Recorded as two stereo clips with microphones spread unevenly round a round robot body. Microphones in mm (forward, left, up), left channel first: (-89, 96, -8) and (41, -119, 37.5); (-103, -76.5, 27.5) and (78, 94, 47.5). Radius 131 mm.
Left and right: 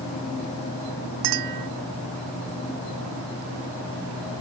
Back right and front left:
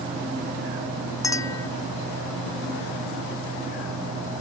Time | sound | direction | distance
1.2 | a clink | 60° right | ?